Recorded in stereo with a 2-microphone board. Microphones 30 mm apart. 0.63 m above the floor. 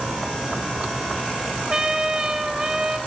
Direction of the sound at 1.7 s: 20° right (ahead or behind).